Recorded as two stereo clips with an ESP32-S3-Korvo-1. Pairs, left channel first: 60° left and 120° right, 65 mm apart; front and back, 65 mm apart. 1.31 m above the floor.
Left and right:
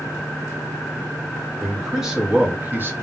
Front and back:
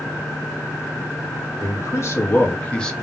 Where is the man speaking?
30° right, 1.1 m; by 2.9 s 80° right, 0.7 m.